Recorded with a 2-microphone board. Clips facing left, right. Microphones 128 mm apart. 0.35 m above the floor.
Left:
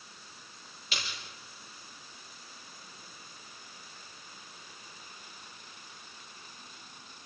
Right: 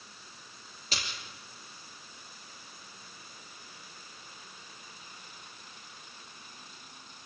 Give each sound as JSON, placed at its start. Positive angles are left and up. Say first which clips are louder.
{"t": 0.9, "sound": "a splash", "louder": "right 1 dB", "side_deg": -40, "distance_m": 5.5}